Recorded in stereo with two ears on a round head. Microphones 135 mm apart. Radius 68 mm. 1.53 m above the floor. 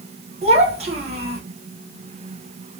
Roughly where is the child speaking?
Right.